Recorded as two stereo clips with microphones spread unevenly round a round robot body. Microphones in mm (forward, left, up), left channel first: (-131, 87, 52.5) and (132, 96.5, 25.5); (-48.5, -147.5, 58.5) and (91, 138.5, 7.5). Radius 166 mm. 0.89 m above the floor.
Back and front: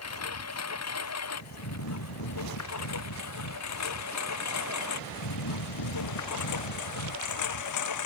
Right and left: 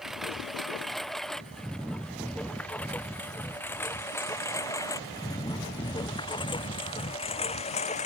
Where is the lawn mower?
155° left; by 8.1 s 175° left.